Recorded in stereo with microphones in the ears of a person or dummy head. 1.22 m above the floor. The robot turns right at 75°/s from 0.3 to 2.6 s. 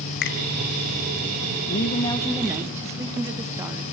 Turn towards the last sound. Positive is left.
turn(degrees=-160)